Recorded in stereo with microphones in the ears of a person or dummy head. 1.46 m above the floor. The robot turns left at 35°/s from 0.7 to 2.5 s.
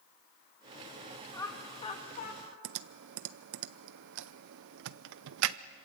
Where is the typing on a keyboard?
70° right (ahead or behind), 0.6 m.